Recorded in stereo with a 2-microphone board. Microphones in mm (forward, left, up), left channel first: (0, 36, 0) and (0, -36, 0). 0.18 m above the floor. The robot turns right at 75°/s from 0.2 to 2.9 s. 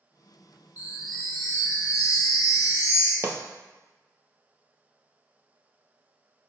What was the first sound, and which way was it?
A chime, 25° right.